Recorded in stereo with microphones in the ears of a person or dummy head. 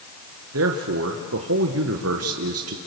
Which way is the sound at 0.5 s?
65° right (ahead or behind).